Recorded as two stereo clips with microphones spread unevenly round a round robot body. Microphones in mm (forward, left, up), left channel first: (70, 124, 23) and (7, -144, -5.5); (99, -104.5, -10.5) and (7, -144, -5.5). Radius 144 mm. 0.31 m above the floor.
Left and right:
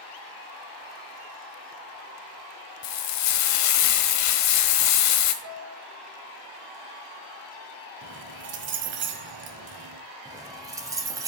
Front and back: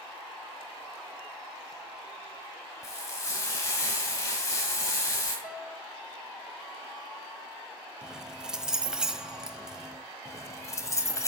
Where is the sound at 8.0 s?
75° right, 1.3 m.